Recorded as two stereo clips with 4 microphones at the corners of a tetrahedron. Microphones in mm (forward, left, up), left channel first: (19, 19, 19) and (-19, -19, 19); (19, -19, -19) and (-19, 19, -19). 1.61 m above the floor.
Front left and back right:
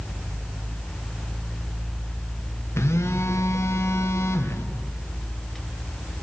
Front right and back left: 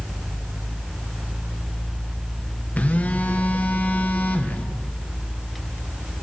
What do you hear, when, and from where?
2.8 s a phone buzzing: 20° left, 1.4 m